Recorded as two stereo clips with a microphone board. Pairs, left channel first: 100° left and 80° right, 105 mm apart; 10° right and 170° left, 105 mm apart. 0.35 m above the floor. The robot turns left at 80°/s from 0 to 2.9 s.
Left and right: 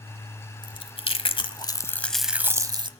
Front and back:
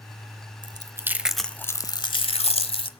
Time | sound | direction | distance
0.6 | chewing | 135° left | 0.8 m